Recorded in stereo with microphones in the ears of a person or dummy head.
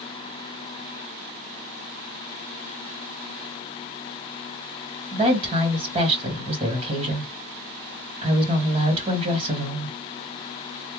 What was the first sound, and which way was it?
A woman speaking, 30° right (ahead or behind).